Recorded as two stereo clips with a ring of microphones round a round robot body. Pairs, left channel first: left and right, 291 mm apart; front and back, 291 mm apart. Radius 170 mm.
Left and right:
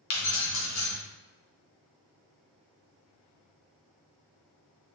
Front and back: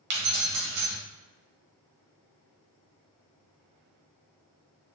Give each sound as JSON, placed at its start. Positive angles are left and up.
{"t": 0.1, "sound": "keys jangling", "azimuth_deg": 130, "distance_m": 0.8}